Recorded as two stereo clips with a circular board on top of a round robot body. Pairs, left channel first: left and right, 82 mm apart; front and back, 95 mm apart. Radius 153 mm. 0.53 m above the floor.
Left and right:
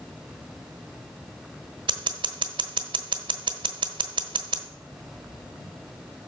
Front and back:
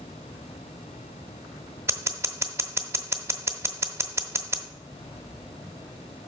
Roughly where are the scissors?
Behind right.